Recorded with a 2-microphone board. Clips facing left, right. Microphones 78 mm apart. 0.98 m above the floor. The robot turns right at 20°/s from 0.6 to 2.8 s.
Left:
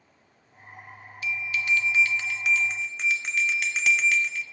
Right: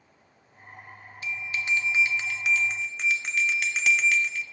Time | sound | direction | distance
1.2 | a bell | 35° right | 1.0 m